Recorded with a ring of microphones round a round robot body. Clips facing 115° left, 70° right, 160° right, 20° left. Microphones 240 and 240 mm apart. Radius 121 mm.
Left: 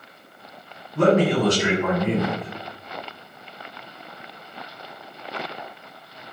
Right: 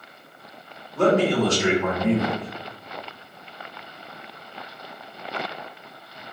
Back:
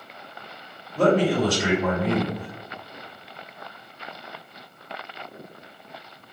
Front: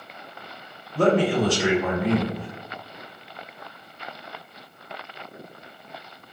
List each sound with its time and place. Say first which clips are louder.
0.9 s a man speaking: left 1 dB, even; 40° left, 2.0 m